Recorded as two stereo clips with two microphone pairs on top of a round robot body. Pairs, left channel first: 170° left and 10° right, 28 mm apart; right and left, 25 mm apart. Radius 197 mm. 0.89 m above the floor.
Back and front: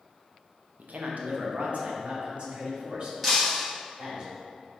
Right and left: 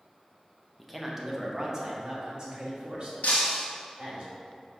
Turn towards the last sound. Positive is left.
turn(degrees=-95)